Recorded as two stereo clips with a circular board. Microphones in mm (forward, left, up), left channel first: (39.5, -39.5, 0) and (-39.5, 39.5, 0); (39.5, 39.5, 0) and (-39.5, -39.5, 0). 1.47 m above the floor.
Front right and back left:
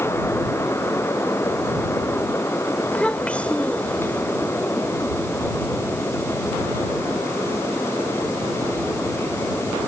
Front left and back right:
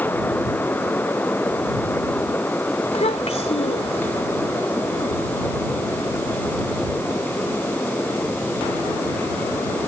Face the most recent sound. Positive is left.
turn(degrees=35)